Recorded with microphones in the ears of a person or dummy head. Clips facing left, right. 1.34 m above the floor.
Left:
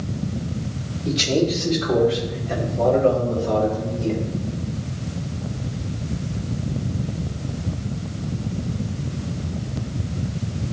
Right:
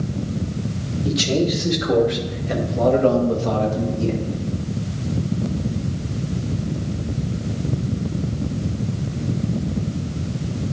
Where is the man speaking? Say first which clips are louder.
Even; 10° right (ahead or behind), 3 m; by 4.3 s 80° right, 2 m.